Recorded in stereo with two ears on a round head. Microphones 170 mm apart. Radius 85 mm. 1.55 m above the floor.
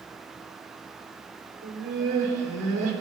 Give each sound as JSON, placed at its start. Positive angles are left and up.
{"t": 1.6, "sound": "laughter", "side_deg": -45, "distance_m": 4.5}